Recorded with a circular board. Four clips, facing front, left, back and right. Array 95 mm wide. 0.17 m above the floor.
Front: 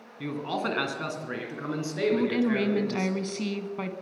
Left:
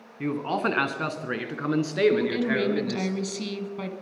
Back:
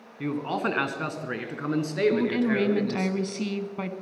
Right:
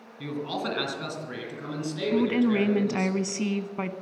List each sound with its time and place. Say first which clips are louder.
0.2 s a man speaking: left 5 dB, back 3 dB; 110° left, 1.7 m
2.1 s a woman speaking: right 1 dB, back 1 dB; 90° right, 1.1 m